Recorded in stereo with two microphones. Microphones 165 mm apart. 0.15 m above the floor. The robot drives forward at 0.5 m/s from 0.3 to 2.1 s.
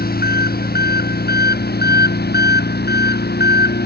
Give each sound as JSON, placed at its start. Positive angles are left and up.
{"t": 0.0, "sound": "an engine running", "side_deg": 65}